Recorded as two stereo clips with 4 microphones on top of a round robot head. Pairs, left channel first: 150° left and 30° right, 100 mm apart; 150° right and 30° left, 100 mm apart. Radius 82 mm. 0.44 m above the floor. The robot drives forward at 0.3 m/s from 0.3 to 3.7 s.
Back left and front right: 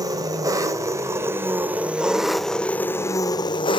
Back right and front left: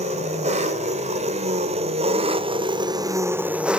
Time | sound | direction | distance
0.0 | an engine running | 25° left | 1.0 m